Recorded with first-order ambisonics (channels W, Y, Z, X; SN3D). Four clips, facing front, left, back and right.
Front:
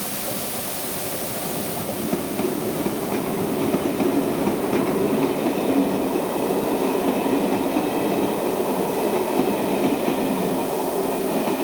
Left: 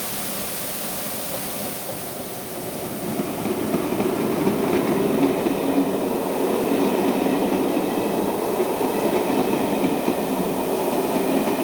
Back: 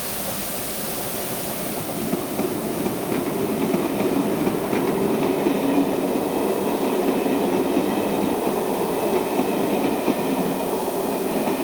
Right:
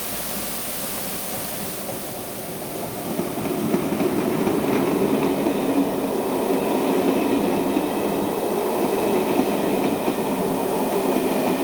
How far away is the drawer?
I don't hear a drawer.